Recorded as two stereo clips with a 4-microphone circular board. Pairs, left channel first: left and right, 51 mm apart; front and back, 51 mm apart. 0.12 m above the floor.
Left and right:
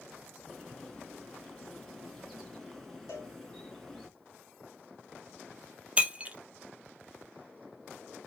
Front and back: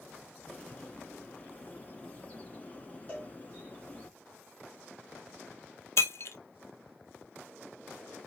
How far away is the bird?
About 1.8 m.